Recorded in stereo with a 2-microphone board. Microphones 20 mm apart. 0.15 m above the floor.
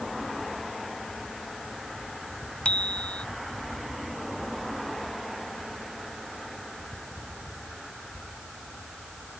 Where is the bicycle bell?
65° left (ahead or behind).